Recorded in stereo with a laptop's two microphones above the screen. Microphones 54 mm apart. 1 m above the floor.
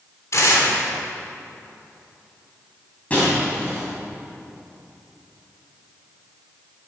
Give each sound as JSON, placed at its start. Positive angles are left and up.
{"t": 0.3, "sound": "tearing paper", "side_deg": 60, "distance_m": 3.0}
{"t": 3.1, "sound": "breaking glass", "side_deg": 25, "distance_m": 5.0}